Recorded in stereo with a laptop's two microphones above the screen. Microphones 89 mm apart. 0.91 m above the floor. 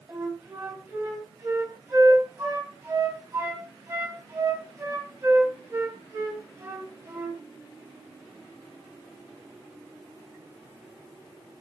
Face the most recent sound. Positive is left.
turn(degrees=-30)  # may be behind; listen again after turning